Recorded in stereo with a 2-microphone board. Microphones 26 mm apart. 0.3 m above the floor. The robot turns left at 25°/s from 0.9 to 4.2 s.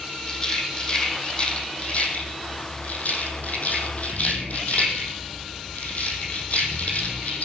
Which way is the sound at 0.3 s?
30° left (ahead or behind).